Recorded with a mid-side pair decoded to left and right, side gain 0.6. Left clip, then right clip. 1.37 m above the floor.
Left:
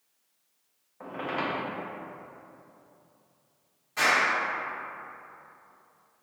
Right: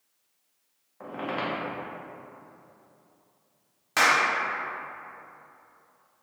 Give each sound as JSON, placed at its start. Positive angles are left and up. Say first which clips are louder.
{"t": 1.0, "sound": "a squeak", "louder": "even", "azimuth_deg": -5, "distance_m": 1.0}
{"t": 4.0, "sound": "a clap", "louder": "right 2 dB", "azimuth_deg": -70, "distance_m": 0.7}